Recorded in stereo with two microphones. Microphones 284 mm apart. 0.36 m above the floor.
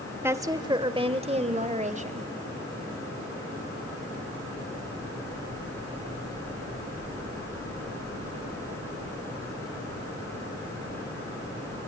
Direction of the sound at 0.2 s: 10° right (ahead or behind).